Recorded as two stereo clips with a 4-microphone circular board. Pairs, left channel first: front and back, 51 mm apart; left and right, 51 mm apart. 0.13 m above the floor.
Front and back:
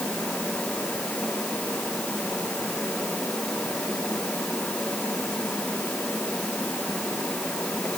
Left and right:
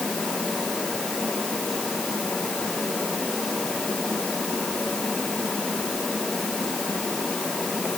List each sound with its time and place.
Only background noise.